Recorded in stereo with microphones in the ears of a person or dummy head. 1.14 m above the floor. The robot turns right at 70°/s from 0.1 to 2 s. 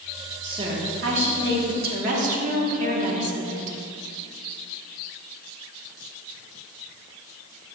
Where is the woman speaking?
160° right, 1.3 m; by 3.8 s 50° right, 1.3 m.